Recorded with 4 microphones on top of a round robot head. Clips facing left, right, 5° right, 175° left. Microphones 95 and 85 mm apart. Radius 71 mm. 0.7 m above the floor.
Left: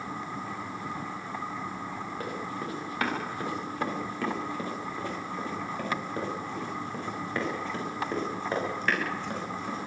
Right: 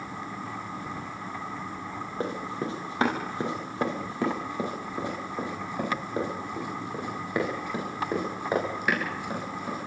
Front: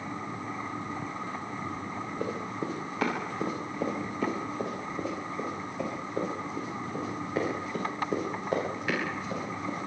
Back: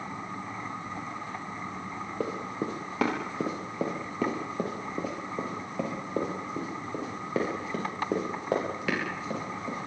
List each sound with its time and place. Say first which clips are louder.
2.2 s running footsteps: right 6 dB, back 2 dB; 155° right, 9 m; by 9.8 s 170° right, 15 m